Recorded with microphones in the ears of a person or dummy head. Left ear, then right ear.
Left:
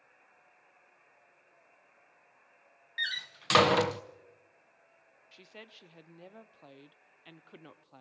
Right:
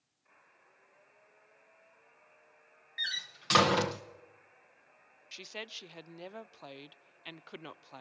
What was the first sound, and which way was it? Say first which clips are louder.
A door slam: left 1 dB; 15° left (ahead or behind).